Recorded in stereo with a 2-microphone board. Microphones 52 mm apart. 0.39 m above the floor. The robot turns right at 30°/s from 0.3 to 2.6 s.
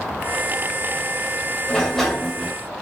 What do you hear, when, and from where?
1.7 s a sliding door: 15° left (ahead or behind), 1.4 m; by 2.5 s 5° right (ahead or behind), 1.4 m